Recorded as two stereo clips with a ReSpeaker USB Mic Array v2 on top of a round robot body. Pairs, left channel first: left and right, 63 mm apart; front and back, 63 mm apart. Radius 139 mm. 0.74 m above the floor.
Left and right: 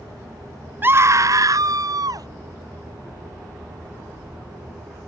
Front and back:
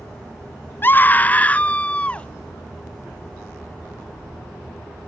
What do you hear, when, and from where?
0.8 s a scream: 45° right; by 2.3 s 70° right